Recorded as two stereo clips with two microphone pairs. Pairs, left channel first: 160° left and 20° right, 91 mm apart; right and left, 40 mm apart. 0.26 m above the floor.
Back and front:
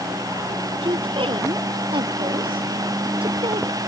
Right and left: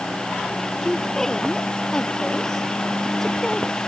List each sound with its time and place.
0.8 s a woman speaking: 15° right